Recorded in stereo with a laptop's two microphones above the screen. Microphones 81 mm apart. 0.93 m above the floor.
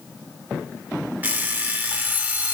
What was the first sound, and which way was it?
An alarm clock, 20° right (ahead or behind).